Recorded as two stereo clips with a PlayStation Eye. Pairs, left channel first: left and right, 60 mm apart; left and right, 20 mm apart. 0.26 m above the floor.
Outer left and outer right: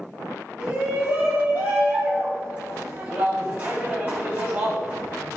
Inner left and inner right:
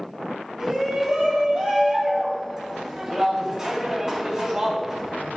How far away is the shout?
About 1.8 m.